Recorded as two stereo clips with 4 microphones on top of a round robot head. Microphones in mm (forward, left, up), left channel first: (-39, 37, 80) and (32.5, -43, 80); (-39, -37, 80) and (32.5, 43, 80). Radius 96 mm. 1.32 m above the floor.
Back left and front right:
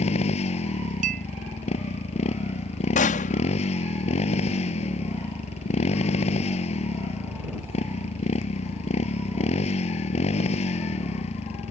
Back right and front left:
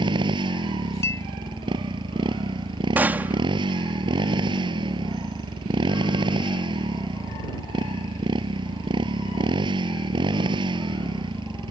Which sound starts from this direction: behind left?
A gunshot, at 3.0 s.